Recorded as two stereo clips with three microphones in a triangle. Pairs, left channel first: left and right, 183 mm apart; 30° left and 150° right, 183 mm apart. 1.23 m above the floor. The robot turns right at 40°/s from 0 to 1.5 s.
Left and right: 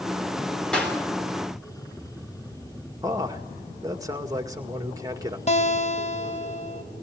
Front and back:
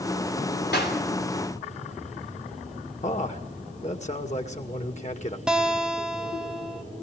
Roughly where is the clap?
Ahead.